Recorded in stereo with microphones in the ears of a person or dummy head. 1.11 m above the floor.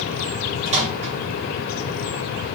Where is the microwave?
30° right (ahead or behind), 1.1 m.